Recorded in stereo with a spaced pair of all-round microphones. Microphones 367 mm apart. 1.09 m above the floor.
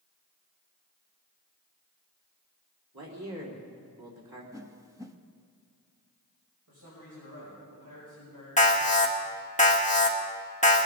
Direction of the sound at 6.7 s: 65° right (ahead or behind).